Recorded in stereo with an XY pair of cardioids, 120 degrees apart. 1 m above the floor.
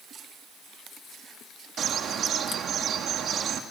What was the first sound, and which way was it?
A bird, 55° right.